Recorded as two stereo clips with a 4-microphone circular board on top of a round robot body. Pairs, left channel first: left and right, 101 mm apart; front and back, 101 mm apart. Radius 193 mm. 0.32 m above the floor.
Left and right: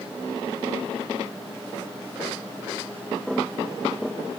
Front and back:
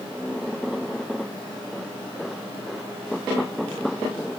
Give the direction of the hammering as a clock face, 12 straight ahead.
I don't hear hammering.